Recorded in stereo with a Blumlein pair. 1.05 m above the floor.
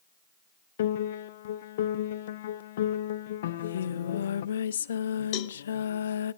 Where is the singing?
65° left, 0.7 m.